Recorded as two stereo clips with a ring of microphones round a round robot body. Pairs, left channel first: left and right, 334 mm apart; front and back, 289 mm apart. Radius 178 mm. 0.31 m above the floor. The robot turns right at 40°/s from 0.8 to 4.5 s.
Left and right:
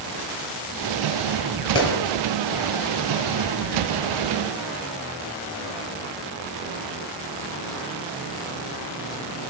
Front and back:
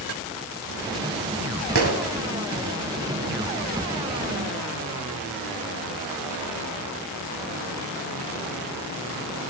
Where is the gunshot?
140° left, 2.5 m; by 2.0 s 145° left, 2.5 m.